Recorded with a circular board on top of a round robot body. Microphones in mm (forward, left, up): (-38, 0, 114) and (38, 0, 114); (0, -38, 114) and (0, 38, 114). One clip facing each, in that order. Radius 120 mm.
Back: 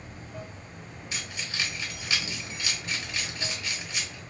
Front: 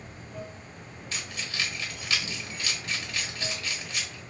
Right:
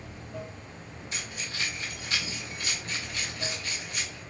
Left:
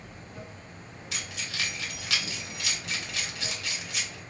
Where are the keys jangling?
105° left, 1.1 m.